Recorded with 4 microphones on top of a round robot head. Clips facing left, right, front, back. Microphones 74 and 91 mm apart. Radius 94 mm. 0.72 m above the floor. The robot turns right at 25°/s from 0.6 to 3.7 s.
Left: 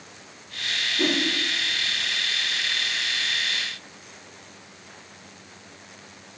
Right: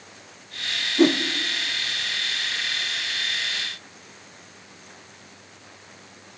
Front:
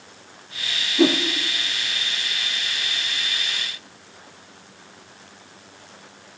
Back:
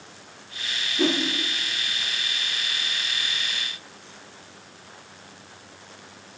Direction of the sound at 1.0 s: 55° right.